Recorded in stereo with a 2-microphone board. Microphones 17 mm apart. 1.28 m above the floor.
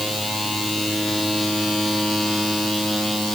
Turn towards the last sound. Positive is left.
No sound to turn to.